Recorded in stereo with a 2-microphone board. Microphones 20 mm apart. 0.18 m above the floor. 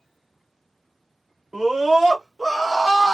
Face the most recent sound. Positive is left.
turn(degrees=-20)  # may be behind; listen again after turning